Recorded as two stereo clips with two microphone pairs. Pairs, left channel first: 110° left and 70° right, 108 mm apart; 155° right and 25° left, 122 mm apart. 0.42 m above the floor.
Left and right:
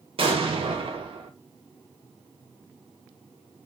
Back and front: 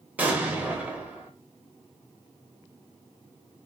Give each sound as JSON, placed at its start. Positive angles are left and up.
{"t": 0.2, "sound": "an explosion", "azimuth_deg": -50, "distance_m": 0.7}